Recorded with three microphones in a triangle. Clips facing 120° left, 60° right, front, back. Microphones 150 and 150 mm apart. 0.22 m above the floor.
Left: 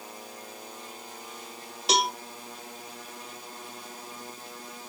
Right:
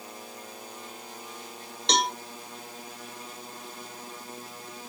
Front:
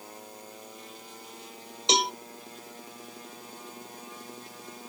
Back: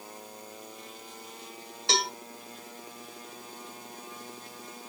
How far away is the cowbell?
About 0.6 m.